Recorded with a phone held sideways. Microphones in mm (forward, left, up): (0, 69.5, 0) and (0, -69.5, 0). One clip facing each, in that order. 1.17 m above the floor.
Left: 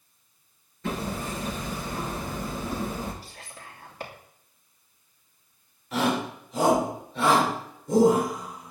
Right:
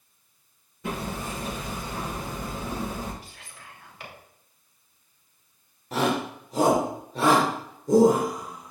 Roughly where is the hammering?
Centre.